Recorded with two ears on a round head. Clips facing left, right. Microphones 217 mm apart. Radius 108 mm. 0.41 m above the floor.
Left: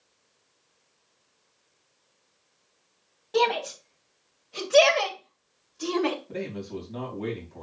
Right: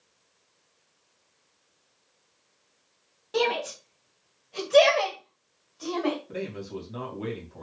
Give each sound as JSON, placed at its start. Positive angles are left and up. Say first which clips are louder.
{"t": 3.3, "sound": "a shout", "louder": "left 1 dB", "side_deg": -10, "distance_m": 2.5}
{"t": 6.3, "sound": "a man speaking", "louder": "left 1 dB", "side_deg": -10, "distance_m": 3.5}